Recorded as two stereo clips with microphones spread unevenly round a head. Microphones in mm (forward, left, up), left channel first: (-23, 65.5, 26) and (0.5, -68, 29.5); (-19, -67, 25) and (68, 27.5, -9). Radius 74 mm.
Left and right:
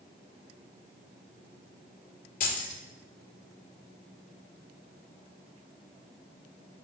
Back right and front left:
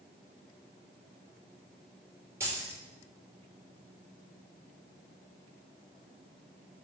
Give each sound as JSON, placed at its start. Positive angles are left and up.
{"t": 2.4, "sound": "keys jangling", "azimuth_deg": 125, "distance_m": 2.5}